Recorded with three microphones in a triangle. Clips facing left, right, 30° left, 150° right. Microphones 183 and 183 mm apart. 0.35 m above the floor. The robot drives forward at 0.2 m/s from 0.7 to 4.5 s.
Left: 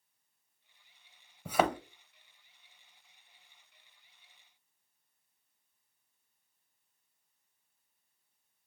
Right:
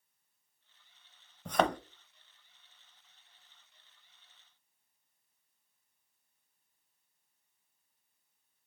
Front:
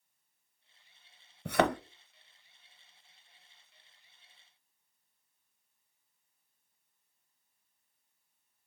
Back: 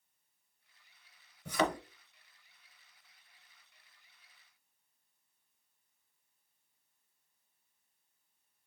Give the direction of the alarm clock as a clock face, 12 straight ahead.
No alarm clock in this recording.